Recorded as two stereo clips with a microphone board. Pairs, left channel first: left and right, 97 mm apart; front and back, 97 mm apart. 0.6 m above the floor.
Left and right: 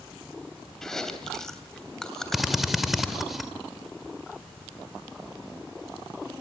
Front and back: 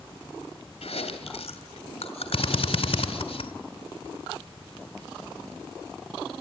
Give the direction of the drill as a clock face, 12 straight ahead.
12 o'clock.